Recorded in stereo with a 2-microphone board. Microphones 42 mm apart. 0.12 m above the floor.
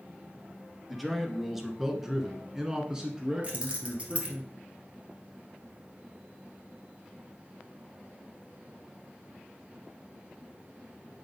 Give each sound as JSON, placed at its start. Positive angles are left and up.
{"t": 0.9, "sound": "a man speaking", "side_deg": 0, "distance_m": 1.4}
{"t": 3.4, "sound": "keys jangling", "side_deg": -30, "distance_m": 1.8}